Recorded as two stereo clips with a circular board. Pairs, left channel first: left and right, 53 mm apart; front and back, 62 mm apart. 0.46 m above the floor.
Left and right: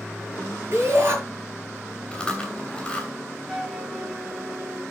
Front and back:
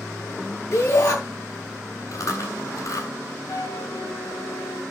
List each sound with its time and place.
0.7 s a shout: 40° right, 6.5 m
2.1 s chewing: 20° left, 3.5 m
3.5 s a flute: 10° right, 2 m